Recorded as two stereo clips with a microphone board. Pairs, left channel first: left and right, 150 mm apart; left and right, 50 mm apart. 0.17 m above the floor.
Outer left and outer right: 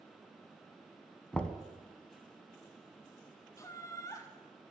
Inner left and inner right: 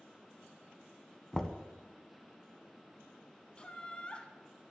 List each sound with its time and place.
1.3 s knocking: 10° left (ahead or behind), 0.7 m
3.6 s laughter: 20° left (ahead or behind), 1.1 m